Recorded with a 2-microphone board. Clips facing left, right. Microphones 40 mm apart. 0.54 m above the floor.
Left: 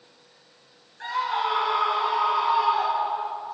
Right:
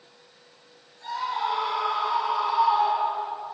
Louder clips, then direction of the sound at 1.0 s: Left 2 dB; 75° left (ahead or behind).